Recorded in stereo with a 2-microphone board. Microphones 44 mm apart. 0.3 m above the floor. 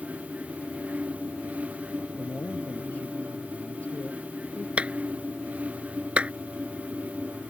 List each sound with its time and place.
2.2 s a man speaking: 35° left (ahead or behind)
4.8 s a clap: 30° right (ahead or behind)